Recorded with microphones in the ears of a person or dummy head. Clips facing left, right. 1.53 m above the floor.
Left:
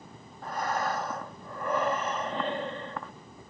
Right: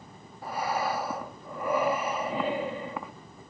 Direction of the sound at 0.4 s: 15° right (ahead or behind).